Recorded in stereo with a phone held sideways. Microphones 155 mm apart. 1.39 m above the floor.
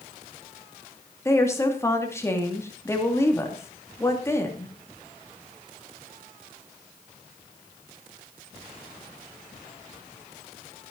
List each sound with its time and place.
1.2 s a woman speaking: 15° left (ahead or behind), 2.5 m